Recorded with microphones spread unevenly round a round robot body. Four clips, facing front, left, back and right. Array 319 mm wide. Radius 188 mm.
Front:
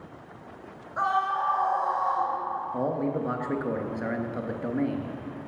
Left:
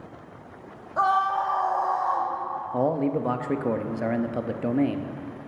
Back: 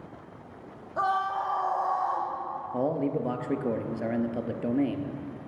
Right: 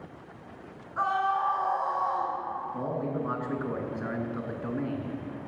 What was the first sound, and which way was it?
A scream, 145° left.